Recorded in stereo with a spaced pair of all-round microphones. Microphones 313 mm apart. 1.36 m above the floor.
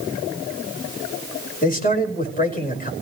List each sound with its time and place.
1.6 s a man speaking: 25° left (ahead or behind), 5 m